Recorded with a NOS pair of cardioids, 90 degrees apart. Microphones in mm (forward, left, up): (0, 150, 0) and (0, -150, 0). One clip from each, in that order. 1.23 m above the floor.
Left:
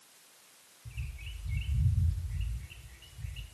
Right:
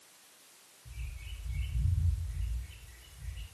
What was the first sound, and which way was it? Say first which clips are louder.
A bird: left 4 dB; 55° left.